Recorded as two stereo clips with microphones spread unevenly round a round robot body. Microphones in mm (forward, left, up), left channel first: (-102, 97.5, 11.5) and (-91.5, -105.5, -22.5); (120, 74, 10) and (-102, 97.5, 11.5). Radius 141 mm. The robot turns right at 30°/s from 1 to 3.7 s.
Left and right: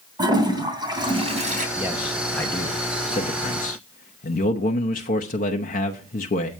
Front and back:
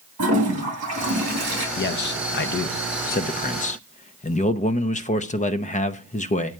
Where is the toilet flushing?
160° right, 3 m; by 1.7 s 140° right, 3 m.